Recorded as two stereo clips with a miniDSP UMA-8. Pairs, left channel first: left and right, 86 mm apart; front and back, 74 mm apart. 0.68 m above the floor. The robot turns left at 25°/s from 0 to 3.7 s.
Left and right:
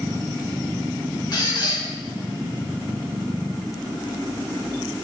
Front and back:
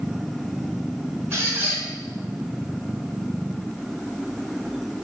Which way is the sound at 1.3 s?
130° left.